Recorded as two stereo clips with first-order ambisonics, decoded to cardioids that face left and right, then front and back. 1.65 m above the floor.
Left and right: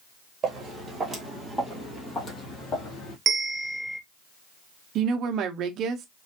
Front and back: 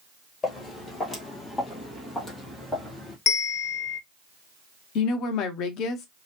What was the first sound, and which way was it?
Footsteps, 45° right.